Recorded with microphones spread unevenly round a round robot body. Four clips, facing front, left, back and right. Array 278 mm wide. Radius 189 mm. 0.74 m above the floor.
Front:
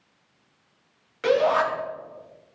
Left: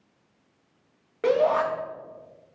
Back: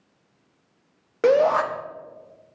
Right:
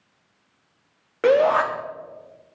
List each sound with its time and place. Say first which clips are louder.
1.2 s a shout: right 4 dB, back 3 dB; 115° right, 1.1 m